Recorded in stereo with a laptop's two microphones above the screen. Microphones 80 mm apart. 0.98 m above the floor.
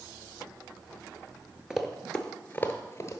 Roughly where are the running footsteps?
Centre.